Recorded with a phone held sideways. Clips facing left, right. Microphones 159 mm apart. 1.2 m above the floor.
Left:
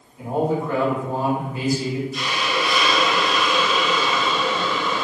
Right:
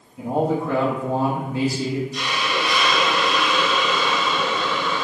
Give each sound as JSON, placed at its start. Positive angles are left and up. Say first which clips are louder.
{"t": 0.2, "sound": "a man speaking", "louder": "right 1 dB", "side_deg": -85, "distance_m": 1.3}
{"t": 2.1, "sound": "a hiss", "louder": "even", "side_deg": 5, "distance_m": 0.5}